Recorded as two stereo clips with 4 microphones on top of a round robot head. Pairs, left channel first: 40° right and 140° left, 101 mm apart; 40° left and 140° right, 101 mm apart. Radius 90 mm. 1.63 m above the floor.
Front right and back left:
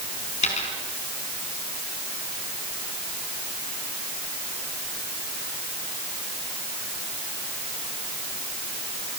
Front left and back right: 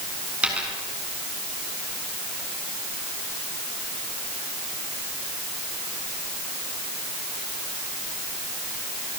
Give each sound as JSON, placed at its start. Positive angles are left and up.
{"t": 0.4, "sound": "a dropped coin", "azimuth_deg": -60, "distance_m": 5.0}